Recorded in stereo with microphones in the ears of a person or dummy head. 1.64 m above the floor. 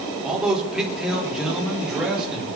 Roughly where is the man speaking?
Centre.